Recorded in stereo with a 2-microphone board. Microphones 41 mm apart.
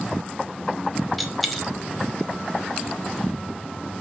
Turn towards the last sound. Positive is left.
turn(degrees=0)  # may be behind; listen again after turning